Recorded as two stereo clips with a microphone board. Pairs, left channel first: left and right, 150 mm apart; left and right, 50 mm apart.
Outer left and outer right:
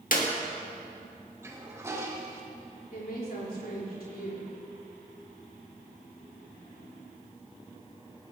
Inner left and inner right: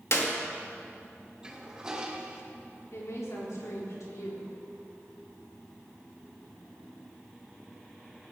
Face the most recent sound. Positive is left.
turn(degrees=85)